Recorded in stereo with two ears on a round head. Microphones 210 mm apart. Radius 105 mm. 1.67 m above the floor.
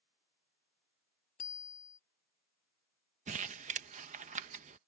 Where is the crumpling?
30° right (ahead or behind).